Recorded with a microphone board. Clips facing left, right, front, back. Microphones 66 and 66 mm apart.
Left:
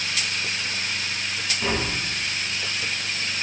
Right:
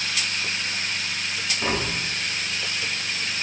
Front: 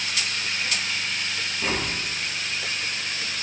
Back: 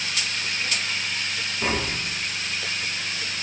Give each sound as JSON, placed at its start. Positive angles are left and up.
{"t": 1.6, "sound": "tapping", "azimuth_deg": -150, "distance_m": 0.7}